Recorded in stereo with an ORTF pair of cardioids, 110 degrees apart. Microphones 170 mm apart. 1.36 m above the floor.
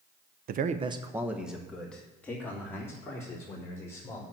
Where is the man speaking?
60° right, 0.8 m; by 4.2 s 15° left, 5.5 m.